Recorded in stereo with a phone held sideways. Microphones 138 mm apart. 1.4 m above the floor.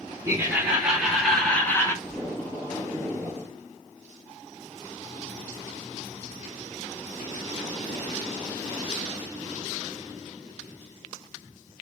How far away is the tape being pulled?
About 2.0 m.